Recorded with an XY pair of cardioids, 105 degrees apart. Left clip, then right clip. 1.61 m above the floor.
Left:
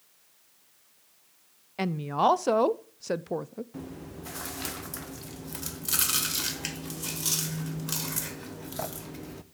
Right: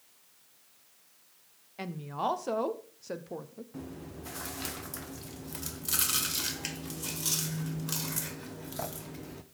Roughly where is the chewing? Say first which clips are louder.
Left 2 dB; ahead.